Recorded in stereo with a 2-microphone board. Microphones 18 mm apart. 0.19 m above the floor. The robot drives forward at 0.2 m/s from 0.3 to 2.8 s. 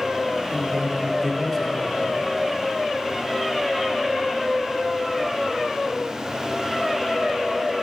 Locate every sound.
0.5 s a man speaking: 15° left (ahead or behind), 1.0 m